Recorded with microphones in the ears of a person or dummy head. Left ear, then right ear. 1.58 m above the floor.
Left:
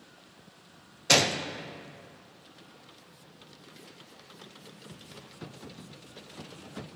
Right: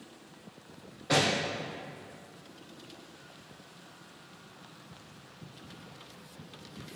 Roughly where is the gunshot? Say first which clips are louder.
Left 4 dB; left.